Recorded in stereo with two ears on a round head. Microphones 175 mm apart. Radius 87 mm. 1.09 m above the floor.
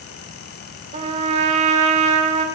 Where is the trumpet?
35° right (ahead or behind), 1.2 m.